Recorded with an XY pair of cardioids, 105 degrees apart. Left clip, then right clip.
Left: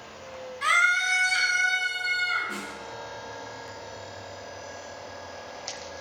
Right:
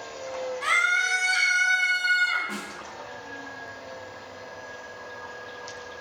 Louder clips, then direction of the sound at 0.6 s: Left 1 dB; 25° left.